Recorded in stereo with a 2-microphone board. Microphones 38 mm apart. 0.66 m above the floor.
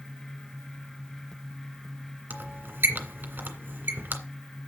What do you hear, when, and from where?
2.3 s a squeak: 65° right (ahead or behind), 2 m